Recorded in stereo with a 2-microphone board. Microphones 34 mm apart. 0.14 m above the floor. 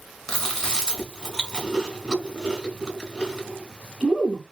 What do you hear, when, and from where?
0.3 s chewing: 15° left (ahead or behind), 1.6 m